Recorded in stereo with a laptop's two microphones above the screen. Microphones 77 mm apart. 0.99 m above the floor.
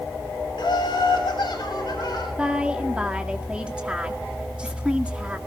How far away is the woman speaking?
About 2.0 m.